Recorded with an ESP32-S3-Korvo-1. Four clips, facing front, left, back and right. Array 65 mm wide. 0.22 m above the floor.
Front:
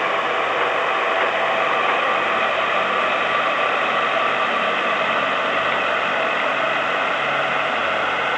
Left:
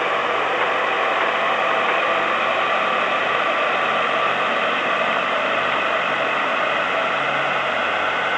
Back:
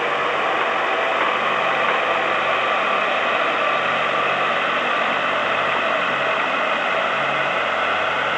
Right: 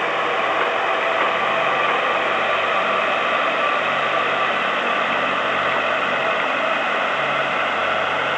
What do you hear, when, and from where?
Only background noise.